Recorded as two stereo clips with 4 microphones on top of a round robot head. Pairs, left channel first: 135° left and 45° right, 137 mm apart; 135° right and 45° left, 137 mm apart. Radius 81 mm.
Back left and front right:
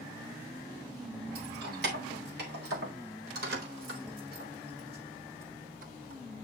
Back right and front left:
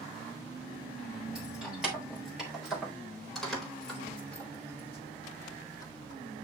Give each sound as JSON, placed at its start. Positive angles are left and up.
{"t": 1.4, "sound": "keys jangling", "azimuth_deg": -40, "distance_m": 5.5}